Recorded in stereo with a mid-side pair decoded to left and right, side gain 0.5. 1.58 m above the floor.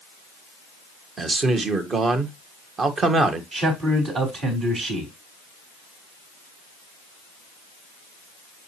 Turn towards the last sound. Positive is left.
turn(degrees=-55)